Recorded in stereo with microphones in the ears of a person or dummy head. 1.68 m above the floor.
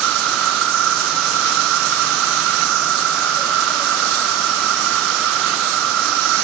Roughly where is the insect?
Right.